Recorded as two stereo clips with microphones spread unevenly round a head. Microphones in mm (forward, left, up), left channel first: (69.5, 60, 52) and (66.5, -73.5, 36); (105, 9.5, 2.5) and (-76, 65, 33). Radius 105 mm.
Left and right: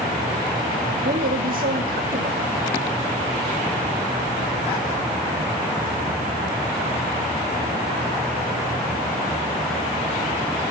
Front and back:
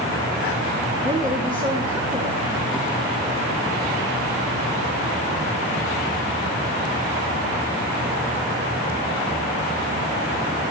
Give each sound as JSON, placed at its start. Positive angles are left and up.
{"t": 1.0, "sound": "a woman speaking", "azimuth_deg": -125, "distance_m": 3.5}